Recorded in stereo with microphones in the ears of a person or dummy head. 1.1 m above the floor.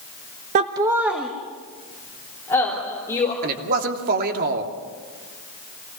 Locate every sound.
0.6 s laughter: 40° right (ahead or behind), 0.7 m; by 3.3 s 15° left (ahead or behind), 4 m
3.4 s a man speaking: 50° right (ahead or behind), 2.5 m